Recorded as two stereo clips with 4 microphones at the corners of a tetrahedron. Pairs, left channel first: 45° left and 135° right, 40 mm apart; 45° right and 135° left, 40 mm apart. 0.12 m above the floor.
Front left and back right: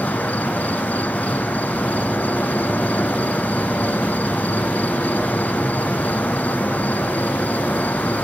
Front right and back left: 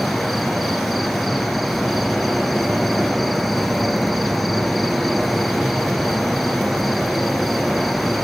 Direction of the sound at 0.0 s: 45° left.